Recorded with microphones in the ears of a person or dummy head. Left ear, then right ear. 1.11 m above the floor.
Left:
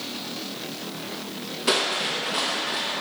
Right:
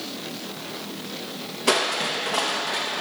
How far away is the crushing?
About 0.7 m.